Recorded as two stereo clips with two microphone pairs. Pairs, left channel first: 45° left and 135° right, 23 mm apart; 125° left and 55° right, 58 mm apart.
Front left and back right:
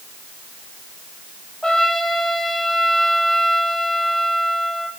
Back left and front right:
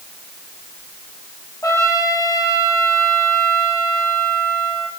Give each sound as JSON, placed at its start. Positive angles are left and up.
{"t": 1.6, "sound": "a trumpet", "azimuth_deg": 105, "distance_m": 4.5}